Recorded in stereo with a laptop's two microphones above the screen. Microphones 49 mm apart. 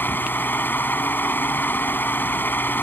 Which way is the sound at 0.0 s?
45° left (ahead or behind).